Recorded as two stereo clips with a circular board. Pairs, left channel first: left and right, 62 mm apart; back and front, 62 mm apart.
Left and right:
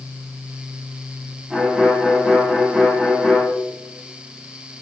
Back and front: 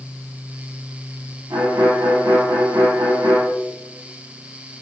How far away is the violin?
About 4.5 m.